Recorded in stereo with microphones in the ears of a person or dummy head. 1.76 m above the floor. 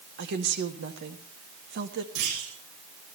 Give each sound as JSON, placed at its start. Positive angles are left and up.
{"t": 0.2, "sound": "a woman speaking", "side_deg": -60, "distance_m": 1.9}
{"t": 2.1, "sound": "a clunk", "side_deg": -80, "distance_m": 7.0}